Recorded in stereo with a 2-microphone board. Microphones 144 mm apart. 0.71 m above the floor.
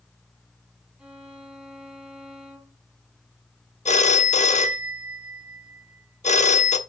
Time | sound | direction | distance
1.0 | a violin | 5° right (ahead or behind) | 1.7 m
3.9 | a phone ringing | 55° left (ahead or behind) | 0.9 m